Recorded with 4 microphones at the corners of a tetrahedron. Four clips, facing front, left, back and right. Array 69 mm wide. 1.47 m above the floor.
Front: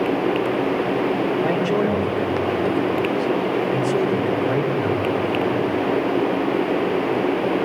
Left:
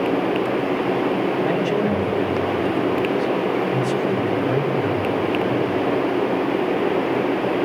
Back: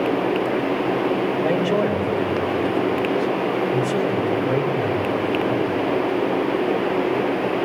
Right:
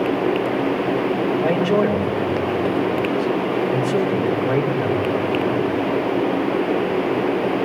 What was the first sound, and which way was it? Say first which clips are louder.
A man speaking: right 2 dB, back 1 dB; 55° right.